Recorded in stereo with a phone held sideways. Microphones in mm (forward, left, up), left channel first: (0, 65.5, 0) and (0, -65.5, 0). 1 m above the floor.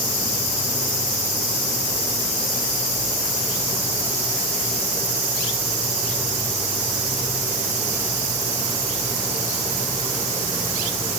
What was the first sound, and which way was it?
Only background noise.